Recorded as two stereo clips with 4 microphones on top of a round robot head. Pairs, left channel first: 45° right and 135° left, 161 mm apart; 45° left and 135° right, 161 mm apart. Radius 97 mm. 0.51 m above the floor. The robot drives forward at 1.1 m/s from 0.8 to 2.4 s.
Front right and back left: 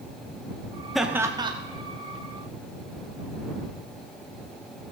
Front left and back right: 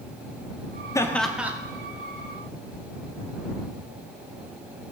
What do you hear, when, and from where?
0.9 s laughter: 45° left, 0.9 m; by 1.5 s 155° left, 1.0 m